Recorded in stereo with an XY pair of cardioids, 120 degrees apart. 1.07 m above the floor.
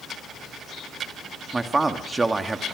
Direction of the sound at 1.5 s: 20° right.